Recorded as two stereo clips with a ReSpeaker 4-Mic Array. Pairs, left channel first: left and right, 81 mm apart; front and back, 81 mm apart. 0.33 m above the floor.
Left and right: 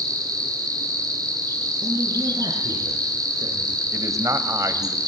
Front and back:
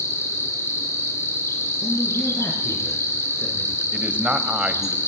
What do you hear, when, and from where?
0.0 s an insect: 55° right, 4 m
1.8 s a man speaking: 60° right, 4.5 m
3.9 s a man speaking: 115° right, 1.6 m